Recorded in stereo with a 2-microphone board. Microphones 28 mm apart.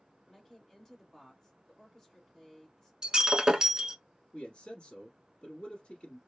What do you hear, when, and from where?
0.3 s a woman speaking: 20° left (ahead or behind), 1.8 m
3.0 s breaking glass: 25° right (ahead or behind), 0.8 m
4.3 s a man speaking: 35° left (ahead or behind), 1.2 m